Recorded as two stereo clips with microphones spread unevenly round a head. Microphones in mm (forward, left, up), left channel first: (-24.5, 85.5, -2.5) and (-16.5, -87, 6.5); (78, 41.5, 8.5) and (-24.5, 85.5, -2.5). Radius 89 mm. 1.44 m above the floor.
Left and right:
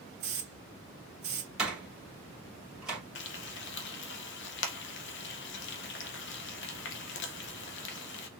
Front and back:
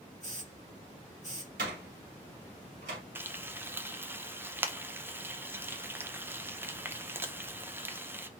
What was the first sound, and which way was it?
A hiss, 120° right.